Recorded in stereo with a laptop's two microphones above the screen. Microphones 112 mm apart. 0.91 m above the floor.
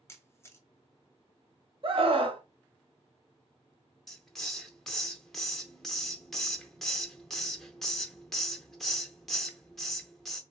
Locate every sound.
0.1 s a camera shutter: 25° left (ahead or behind), 0.6 m
1.8 s a scream: 50° right (ahead or behind), 0.9 m
4.1 s a hiss: 5° left (ahead or behind), 0.7 m